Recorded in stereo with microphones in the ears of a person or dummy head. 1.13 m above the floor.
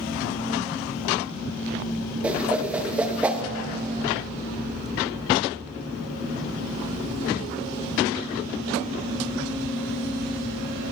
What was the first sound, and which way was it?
A whoosh, 15° right (ahead or behind).